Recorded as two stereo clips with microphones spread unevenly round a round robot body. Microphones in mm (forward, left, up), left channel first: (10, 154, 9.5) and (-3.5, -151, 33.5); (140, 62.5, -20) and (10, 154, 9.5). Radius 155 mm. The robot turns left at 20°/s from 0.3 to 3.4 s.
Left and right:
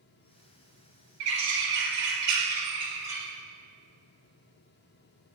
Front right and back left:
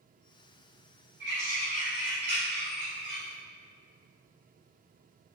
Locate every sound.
1.2 s a bird: 135° right, 2.5 m; by 3.2 s 175° right, 2.5 m